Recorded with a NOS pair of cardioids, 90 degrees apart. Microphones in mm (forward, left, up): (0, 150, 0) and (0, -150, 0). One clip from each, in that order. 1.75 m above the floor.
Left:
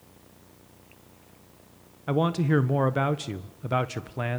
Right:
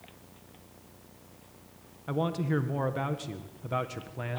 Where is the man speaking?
40° left, 1.5 m.